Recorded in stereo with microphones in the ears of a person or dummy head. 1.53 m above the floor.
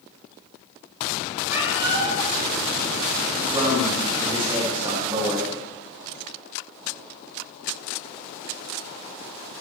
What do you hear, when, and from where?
1.5 s a cat meowing: 10° right (ahead or behind), 5 m
3.4 s a man speaking: 25° right (ahead or behind), 3 m